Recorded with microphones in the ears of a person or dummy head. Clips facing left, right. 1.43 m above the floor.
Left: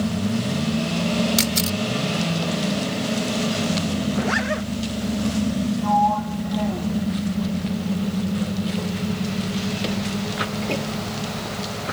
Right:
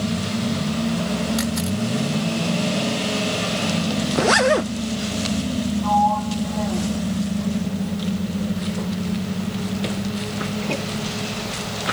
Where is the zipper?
65° right (ahead or behind).